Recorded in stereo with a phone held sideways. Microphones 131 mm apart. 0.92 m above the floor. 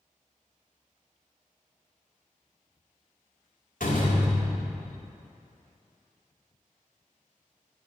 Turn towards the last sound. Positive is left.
turn(degrees=80)